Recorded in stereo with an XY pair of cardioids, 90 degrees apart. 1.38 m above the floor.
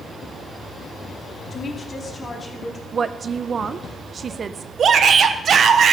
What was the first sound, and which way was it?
A woman speaking, 45° left.